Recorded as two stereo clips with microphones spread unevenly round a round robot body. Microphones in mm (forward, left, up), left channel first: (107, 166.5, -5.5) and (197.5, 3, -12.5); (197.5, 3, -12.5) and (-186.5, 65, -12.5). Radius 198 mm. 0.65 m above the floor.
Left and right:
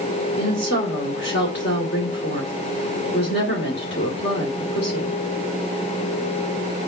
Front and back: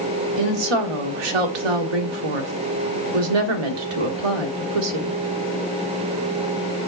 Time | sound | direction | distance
0.4 | a woman speaking | 165° left | 1.8 m